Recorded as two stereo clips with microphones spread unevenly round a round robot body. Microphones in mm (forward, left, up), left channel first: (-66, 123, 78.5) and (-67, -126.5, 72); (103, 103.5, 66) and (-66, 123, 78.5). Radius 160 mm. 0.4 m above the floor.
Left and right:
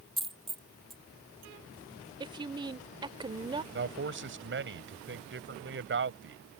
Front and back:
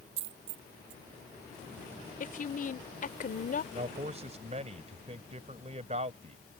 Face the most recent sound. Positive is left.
turn(degrees=-125)